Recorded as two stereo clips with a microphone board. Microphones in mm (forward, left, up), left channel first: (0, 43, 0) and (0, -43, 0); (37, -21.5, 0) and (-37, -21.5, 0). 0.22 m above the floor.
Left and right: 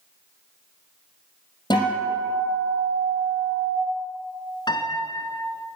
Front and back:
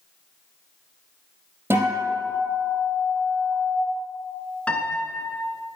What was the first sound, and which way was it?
A guitar, 120° left.